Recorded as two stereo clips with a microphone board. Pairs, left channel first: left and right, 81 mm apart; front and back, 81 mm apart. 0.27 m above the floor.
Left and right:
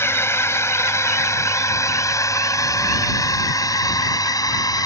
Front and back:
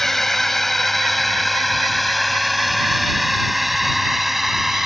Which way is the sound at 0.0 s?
85° left.